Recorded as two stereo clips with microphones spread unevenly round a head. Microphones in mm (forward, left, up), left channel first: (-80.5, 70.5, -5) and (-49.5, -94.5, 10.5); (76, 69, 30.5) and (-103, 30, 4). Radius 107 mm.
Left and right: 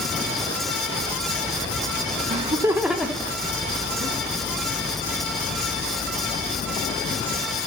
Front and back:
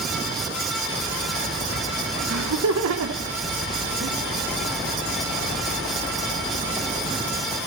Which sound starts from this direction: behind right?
Laughter, at 2.3 s.